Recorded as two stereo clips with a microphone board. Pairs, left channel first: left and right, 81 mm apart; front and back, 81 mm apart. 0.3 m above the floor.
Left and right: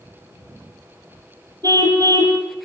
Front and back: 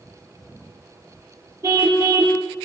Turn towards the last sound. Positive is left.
turn(degrees=-125)